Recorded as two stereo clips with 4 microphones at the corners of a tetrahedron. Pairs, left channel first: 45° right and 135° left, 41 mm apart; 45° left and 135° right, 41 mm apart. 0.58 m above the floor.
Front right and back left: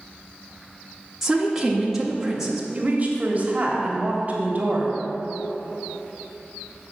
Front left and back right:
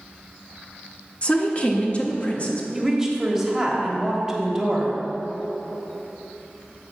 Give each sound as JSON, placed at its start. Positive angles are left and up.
{"t": 1.2, "sound": "a woman speaking", "azimuth_deg": 65, "distance_m": 0.9}
{"t": 2.7, "sound": "a woman speaking", "azimuth_deg": 150, "distance_m": 1.3}